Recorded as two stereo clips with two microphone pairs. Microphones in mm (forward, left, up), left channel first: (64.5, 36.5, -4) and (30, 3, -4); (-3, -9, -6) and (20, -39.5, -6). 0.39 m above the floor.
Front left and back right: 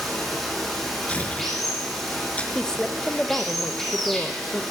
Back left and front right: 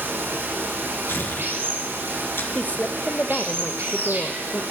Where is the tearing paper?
105° left, 2.5 m.